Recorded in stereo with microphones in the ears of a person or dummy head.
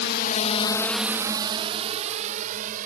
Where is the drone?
60° left (ahead or behind); by 2.9 s 45° right (ahead or behind).